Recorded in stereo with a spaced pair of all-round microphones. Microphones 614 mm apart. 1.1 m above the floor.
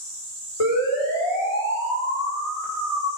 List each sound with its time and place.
0.6 s a siren: 65° left (ahead or behind), 5.5 m; by 3.1 s 75° left (ahead or behind), 5 m